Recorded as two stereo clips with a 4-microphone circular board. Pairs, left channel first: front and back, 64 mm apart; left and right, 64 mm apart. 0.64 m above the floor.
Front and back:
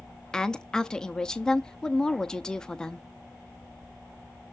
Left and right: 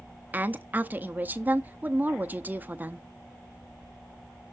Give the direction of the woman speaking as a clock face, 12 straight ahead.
2 o'clock.